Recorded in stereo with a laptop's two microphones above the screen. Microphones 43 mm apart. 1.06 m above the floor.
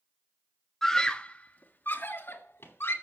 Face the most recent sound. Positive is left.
turn(degrees=75)  # may be behind; listen again after turning